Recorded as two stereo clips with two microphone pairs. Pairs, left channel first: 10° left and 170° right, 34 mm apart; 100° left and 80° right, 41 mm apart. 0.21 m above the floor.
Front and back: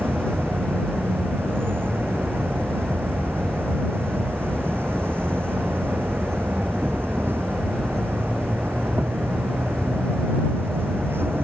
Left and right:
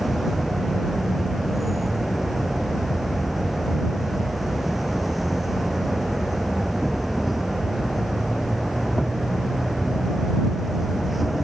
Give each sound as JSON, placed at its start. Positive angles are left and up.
{"t": 0.0, "sound": "an insect", "azimuth_deg": -170}